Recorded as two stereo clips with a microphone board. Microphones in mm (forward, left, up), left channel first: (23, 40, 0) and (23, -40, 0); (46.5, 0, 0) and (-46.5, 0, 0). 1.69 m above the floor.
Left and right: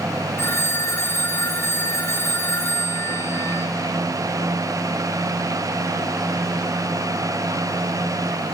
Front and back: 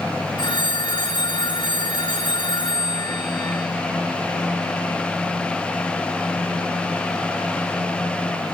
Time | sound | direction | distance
0.4 | a phone ringing | 30° left | 3.5 m